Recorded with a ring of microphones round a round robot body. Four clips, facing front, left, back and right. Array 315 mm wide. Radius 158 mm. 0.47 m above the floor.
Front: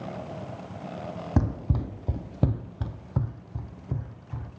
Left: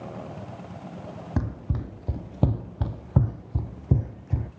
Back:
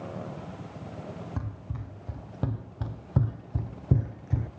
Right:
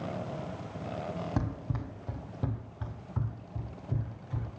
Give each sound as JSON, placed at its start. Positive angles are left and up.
{"t": 1.4, "sound": "running footsteps", "azimuth_deg": 15, "distance_m": 1.0}